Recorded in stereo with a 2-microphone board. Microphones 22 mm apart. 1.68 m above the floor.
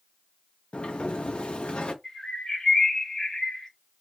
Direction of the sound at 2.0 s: 30° left (ahead or behind).